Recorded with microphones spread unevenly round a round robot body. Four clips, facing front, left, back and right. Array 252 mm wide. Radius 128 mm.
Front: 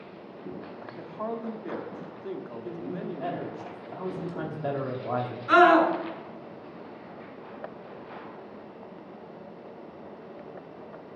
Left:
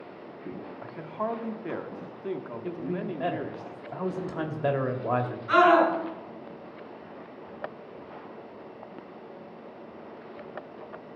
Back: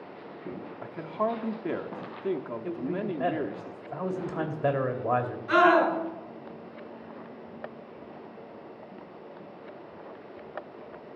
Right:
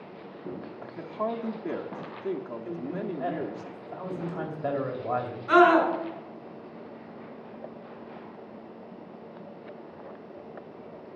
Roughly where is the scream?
Ahead right.